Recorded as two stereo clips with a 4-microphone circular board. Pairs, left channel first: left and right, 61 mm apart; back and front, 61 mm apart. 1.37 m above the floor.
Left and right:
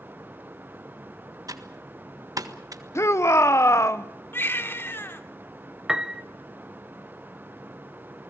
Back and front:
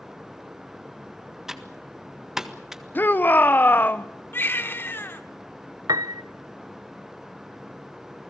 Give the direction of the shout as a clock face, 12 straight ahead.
8 o'clock.